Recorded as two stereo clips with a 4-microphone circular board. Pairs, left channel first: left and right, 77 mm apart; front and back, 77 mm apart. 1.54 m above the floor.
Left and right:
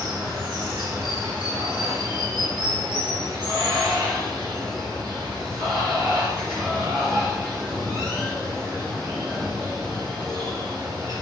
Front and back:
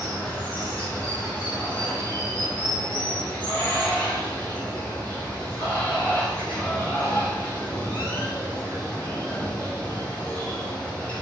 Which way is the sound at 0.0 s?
70° right.